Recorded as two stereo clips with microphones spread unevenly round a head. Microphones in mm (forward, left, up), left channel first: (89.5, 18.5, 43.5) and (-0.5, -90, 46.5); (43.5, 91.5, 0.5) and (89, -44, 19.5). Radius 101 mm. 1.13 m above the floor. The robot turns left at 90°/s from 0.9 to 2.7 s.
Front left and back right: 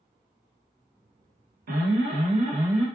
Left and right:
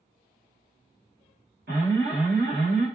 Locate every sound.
1.7 s an alarm: 115° right, 0.9 m; by 2.9 s 150° left, 0.9 m